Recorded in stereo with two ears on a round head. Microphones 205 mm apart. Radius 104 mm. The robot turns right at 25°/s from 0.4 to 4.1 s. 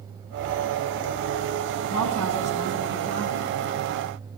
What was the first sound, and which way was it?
A woman speaking, 20° left.